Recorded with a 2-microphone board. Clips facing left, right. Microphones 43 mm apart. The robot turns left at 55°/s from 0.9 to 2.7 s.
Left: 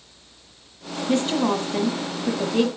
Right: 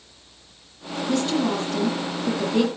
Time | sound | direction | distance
1.1 | a woman speaking | 30° left (ahead or behind) | 1.4 m